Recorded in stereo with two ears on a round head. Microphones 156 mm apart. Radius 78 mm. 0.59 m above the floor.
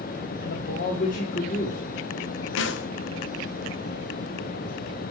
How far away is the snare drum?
About 0.5 m.